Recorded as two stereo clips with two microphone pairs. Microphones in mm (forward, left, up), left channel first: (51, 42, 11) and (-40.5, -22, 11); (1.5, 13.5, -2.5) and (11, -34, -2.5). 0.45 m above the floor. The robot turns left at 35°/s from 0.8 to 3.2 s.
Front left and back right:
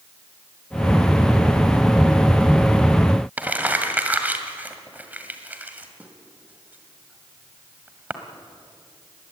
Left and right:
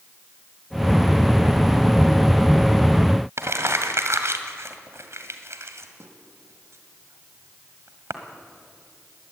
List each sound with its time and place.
3.4 s crumpling: 70° right, 1.8 m